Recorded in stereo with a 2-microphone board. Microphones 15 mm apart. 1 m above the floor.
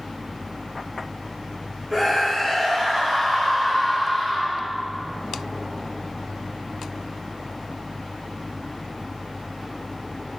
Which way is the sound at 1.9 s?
20° right (ahead or behind).